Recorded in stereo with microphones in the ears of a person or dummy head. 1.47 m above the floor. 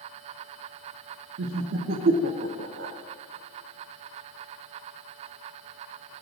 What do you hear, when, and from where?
1.4 s laughter: 60° right (ahead or behind), 0.5 m